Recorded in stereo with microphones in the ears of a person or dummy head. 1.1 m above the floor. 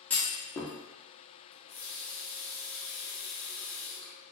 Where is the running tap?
10° left (ahead or behind), 0.9 m.